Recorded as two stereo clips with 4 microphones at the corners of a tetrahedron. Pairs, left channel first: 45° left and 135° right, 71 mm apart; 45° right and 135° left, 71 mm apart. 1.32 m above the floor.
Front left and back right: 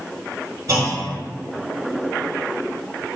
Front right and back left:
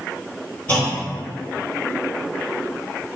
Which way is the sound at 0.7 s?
115° right.